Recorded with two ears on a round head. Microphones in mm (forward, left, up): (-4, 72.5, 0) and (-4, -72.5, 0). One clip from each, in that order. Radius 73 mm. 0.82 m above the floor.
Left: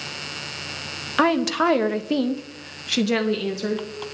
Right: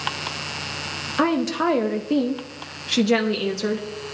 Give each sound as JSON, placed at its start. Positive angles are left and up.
{"t": 1.2, "sound": "a woman speaking", "side_deg": 30, "distance_m": 1.0}